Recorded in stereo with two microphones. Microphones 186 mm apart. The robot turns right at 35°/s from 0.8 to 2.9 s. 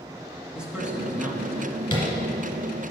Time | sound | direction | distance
0.6 | a man speaking | 5° right (ahead or behind) | 1.1 m
1.9 | tapping | 25° left (ahead or behind) | 2 m